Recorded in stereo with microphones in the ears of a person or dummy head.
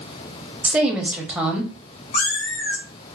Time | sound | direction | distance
0.6 | a woman speaking | 10° right (ahead or behind) | 0.7 m
2.1 | a cat meowing | 60° left (ahead or behind) | 1.4 m